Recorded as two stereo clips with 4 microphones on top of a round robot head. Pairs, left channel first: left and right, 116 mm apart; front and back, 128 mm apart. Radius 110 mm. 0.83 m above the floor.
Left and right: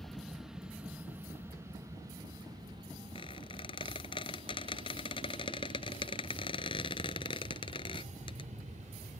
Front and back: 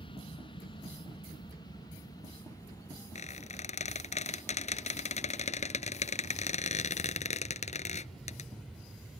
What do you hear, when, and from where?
0.0 s an aircraft: 5° left; by 9.2 s 95° right
3.1 s a squeak: 30° left